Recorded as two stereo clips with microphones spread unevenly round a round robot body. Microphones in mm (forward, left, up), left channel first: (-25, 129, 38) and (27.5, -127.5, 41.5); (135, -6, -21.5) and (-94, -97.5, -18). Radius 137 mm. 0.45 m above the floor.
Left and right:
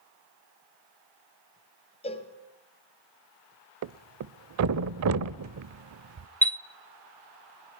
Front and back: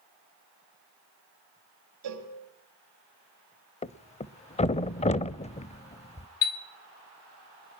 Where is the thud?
45° right, 0.6 m.